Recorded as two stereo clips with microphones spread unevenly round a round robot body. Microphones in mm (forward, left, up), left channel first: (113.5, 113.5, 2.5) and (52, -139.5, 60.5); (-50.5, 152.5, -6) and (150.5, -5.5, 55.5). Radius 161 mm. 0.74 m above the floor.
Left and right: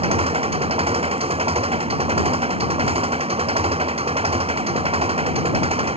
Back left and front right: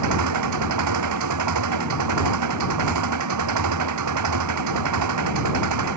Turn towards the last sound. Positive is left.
turn(degrees=-35)